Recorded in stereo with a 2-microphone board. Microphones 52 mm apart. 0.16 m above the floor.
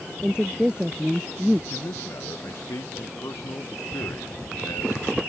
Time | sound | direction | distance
0.2 | a woman speaking | 15° right (ahead or behind) | ?
1.7 | a man speaking | 65° left (ahead or behind) | ?